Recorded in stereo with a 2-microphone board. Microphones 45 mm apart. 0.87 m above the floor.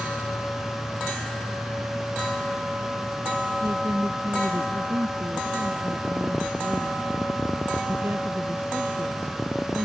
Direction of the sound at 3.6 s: 70° right (ahead or behind).